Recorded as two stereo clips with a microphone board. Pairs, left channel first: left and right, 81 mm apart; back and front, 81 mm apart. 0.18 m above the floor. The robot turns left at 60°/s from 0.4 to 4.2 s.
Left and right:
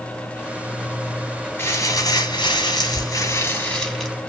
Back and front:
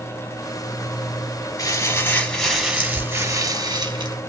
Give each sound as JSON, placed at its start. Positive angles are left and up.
{"t": 1.6, "sound": "crumpling", "azimuth_deg": 145, "distance_m": 1.8}